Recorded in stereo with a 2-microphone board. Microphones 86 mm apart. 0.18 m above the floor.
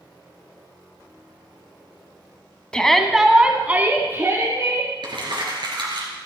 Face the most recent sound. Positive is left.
turn(degrees=-65)  # may be behind; listen again after turning